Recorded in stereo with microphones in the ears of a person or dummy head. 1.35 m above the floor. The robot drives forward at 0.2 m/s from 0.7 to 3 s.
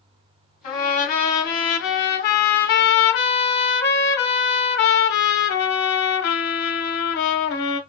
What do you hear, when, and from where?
0.6 s a trumpet: 40° left (ahead or behind), 1.1 m; by 7.8 s 55° left (ahead or behind), 0.9 m